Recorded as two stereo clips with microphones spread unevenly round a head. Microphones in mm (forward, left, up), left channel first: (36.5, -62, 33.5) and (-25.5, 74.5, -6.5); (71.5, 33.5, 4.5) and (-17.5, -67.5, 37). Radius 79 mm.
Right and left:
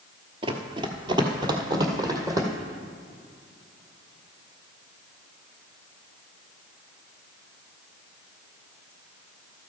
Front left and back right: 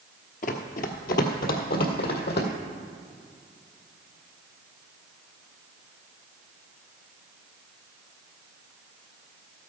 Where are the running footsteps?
50° left, 1.1 m; by 2.5 s 40° left, 2 m.